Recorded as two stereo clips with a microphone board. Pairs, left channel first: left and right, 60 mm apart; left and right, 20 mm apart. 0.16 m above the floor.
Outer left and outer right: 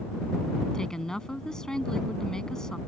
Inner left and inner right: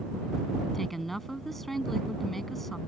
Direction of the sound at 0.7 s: 10° left (ahead or behind).